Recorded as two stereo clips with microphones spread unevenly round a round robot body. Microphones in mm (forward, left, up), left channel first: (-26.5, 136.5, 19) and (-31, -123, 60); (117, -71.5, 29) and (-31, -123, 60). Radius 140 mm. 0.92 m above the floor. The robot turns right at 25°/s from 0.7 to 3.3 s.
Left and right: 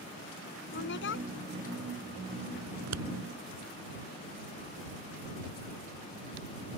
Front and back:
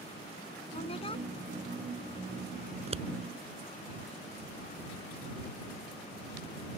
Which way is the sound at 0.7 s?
55° left.